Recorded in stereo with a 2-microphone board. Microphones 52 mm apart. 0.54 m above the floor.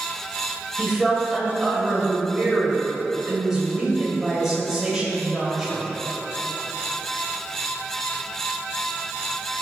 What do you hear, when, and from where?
0.8 s a woman speaking: 10° right (ahead or behind), 3 m